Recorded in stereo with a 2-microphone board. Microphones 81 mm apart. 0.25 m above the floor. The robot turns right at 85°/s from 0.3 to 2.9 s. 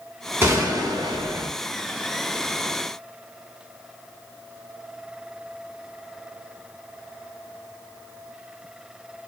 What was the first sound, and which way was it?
A gunshot, 145° right.